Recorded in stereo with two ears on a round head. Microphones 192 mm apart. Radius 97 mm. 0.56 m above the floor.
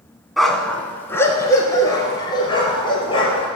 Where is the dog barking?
Centre (ahead or behind), 1.5 m; by 3.5 s 25° left (ahead or behind), 4 m.